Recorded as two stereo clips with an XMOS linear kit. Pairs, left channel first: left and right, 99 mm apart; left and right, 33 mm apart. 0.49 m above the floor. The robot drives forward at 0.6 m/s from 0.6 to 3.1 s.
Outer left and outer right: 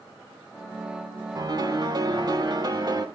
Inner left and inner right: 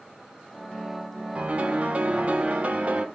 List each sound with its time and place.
1.4 s a piano: 40° right (ahead or behind), 1.6 m